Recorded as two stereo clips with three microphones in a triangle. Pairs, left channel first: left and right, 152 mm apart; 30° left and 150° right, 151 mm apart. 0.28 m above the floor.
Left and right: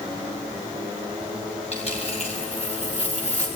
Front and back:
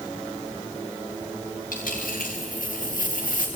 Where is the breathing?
I don't hear breathing.